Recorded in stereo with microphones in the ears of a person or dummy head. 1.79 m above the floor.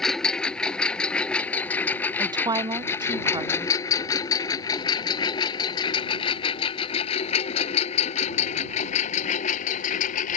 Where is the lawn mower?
Centre (ahead or behind); by 10.4 s 45° left (ahead or behind).